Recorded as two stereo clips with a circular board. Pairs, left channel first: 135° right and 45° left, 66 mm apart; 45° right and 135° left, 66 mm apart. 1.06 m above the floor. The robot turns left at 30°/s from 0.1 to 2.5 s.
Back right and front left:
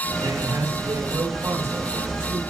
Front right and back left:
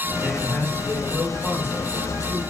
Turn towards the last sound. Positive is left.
turn(degrees=-20)